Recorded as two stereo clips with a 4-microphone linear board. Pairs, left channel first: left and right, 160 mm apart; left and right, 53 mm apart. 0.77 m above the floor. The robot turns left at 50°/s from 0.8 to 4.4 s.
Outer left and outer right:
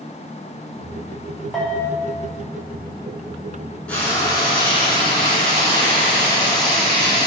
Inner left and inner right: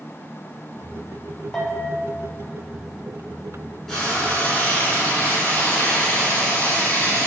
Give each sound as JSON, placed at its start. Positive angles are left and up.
{"t": 1.5, "sound": "a bell", "side_deg": 0, "distance_m": 0.6}
{"t": 3.9, "sound": "frying", "side_deg": 10, "distance_m": 1.3}